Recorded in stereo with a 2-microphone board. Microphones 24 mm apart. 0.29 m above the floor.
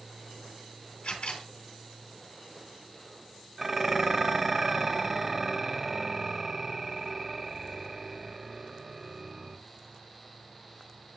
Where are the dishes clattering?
25° right (ahead or behind), 0.6 m.